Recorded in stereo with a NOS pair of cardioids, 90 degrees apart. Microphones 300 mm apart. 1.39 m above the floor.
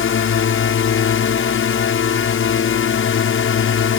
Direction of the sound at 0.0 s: 50° left.